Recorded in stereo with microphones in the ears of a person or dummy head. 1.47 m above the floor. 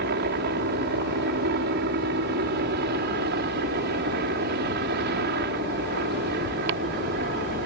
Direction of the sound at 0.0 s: 55° right (ahead or behind).